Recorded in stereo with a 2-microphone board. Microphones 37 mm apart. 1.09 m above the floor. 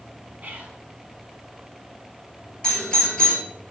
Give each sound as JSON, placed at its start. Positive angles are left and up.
{"t": 0.4, "sound": "whispering", "side_deg": -45, "distance_m": 2.5}
{"t": 2.6, "sound": "a doorbell", "side_deg": 20, "distance_m": 3.0}